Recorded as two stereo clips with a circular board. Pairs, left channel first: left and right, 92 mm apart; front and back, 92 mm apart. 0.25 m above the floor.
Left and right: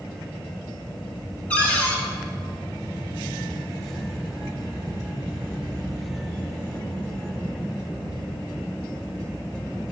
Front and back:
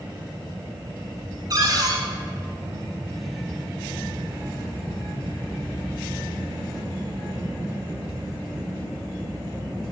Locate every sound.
1.5 s a cupboard door: 160° left, 1.2 m